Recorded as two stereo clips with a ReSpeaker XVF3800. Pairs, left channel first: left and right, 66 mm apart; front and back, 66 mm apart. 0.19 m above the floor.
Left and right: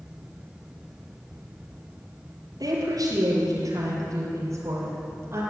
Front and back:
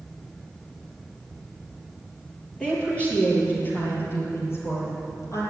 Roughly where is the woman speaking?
Right.